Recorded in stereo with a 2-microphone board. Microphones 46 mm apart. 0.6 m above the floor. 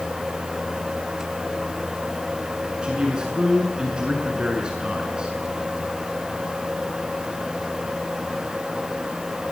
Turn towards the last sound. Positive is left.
turn(degrees=-20)  # may be behind; listen again after turning